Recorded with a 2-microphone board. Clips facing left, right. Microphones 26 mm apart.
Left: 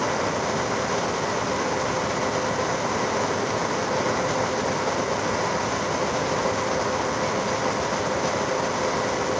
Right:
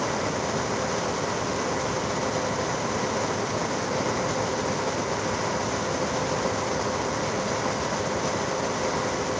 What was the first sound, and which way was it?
Only background noise.